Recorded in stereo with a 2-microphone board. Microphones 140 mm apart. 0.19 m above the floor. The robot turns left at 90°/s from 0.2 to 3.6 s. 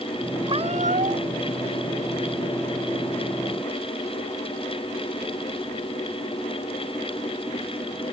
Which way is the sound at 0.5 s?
40° right.